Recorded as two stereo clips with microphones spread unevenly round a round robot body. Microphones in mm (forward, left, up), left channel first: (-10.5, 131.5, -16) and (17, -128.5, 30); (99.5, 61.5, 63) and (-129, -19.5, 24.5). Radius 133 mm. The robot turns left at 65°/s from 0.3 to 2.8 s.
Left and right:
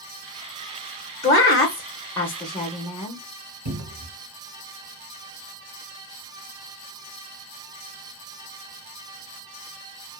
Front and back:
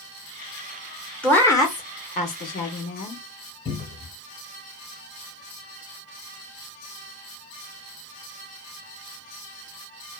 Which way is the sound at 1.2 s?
120° left.